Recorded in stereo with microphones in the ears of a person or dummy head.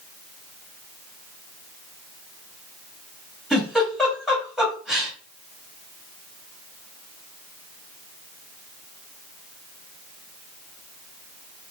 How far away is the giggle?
About 2 m.